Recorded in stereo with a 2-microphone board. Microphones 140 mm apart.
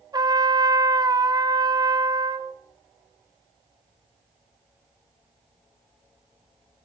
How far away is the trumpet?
About 0.7 m.